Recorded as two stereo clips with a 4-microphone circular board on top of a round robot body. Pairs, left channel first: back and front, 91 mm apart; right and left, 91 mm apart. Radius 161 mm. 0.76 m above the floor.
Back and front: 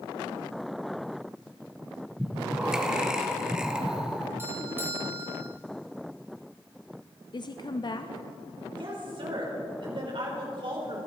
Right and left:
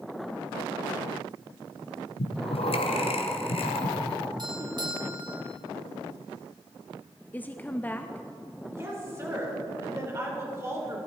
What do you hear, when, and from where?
2.2 s breathing: 80° right, 1.3 m
4.4 s a doorbell: 65° left, 2.5 m
7.3 s a woman speaking: 160° right, 0.8 m
8.7 s a woman speaking: 30° left, 4 m